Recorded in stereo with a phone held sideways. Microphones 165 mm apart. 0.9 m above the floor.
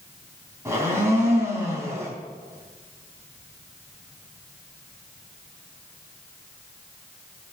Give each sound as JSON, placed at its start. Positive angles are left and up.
{"t": 0.7, "sound": "a blender", "side_deg": -15, "distance_m": 3.5}